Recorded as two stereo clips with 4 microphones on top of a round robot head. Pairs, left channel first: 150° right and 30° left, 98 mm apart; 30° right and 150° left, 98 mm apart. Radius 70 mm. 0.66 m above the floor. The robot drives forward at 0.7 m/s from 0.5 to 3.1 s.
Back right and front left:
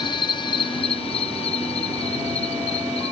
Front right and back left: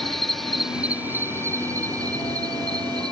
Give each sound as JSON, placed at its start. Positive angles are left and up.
{"t": 0.0, "sound": "an insect", "azimuth_deg": -120}